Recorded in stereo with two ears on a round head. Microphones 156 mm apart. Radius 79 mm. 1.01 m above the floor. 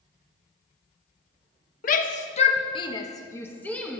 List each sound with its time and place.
1.8 s a shout: 55° left (ahead or behind), 1.0 m; by 4.0 s 5° left (ahead or behind), 1.4 m